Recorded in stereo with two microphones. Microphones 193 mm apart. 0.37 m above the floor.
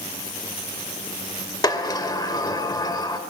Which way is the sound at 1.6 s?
20° left (ahead or behind).